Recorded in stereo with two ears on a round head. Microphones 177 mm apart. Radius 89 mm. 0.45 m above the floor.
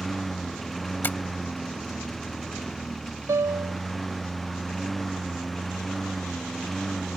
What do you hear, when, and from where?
0.0 s a lawn mower: centre (ahead or behind)
1.0 s tapping: 10° left (ahead or behind)
3.3 s a piano: 15° right (ahead or behind)